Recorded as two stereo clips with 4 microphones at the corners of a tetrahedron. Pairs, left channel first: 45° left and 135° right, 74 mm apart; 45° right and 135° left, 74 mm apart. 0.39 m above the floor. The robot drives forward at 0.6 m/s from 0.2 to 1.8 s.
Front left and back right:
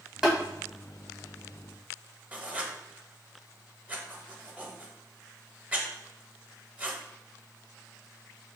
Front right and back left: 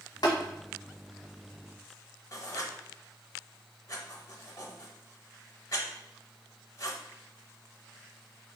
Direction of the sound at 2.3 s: 70° right.